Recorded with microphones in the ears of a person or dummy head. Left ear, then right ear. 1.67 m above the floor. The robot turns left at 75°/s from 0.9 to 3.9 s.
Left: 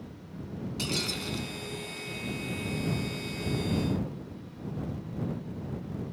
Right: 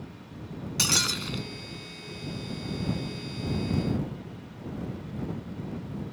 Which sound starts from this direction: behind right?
Breaking glass, at 0.8 s.